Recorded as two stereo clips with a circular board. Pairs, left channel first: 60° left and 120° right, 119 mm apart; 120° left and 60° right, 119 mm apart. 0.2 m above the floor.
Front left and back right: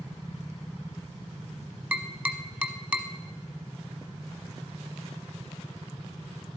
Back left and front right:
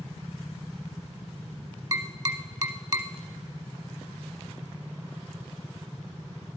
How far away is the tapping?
About 0.8 m.